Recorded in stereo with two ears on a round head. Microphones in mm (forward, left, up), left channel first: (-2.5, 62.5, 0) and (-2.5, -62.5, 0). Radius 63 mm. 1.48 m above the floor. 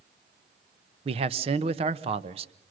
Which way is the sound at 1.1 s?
40° right (ahead or behind).